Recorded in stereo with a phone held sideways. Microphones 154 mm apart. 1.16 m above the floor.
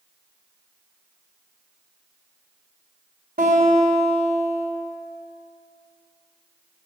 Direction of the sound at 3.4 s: 75° right (ahead or behind).